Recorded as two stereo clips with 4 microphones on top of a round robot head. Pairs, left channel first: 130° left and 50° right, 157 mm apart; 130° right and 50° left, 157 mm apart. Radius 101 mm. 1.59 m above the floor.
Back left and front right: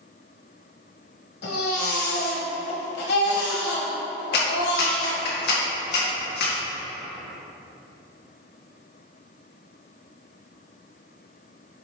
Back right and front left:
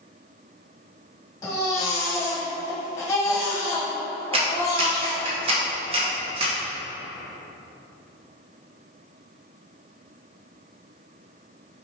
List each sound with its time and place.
1.4 s a baby crying: 155° left, 1.4 m
4.3 s a clap: 105° left, 1.3 m